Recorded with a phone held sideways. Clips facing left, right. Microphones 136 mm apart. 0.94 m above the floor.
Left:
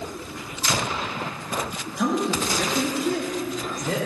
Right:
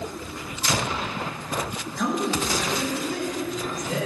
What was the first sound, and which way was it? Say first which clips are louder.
A man speaking: left 2 dB; 15° left (ahead or behind).